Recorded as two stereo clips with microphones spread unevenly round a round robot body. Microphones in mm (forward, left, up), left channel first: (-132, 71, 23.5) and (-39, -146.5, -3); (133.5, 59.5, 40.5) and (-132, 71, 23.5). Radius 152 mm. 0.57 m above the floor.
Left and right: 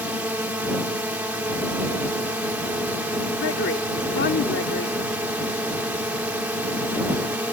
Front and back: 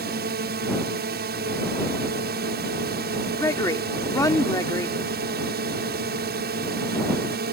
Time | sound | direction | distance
0.0 | a drone | 145° right | ?
3.4 | a woman speaking | 75° left | ?